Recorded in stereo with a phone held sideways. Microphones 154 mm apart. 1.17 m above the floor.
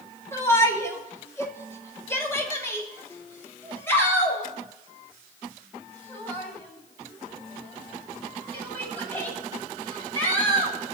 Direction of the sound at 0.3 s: 20° left (ahead or behind).